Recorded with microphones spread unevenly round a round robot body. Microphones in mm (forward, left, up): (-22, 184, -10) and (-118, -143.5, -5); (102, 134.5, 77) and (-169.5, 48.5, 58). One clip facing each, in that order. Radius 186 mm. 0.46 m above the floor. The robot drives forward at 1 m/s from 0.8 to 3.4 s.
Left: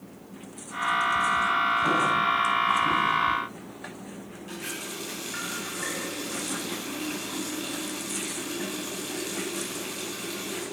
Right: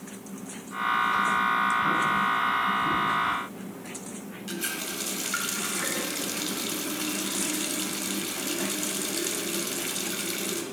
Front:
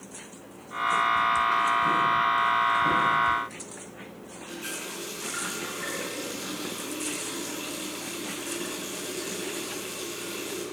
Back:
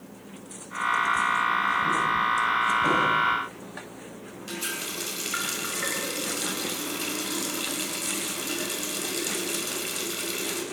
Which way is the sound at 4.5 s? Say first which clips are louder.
Right 3 dB, back 2 dB; 130° right.